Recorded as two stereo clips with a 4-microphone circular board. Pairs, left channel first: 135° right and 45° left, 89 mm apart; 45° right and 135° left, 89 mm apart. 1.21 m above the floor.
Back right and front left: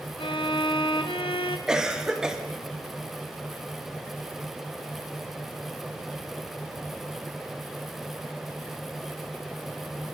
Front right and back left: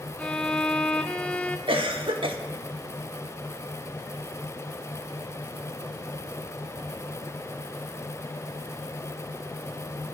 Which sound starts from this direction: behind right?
A violin, at 0.2 s.